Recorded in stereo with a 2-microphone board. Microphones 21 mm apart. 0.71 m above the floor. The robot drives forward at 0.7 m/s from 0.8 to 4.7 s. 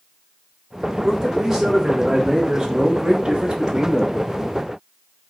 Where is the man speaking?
20° right (ahead or behind), 2 m; by 4.2 s 35° right (ahead or behind), 1.1 m.